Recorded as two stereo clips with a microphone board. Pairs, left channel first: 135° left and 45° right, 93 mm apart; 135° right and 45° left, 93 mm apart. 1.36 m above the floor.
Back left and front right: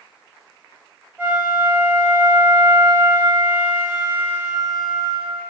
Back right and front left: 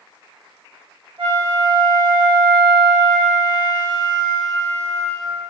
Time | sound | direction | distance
1.2 | a flute | 25° left | 3.5 m